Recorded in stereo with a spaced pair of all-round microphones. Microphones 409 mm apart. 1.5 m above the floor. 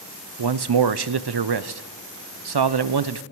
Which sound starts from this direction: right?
A man speaking, at 0.4 s.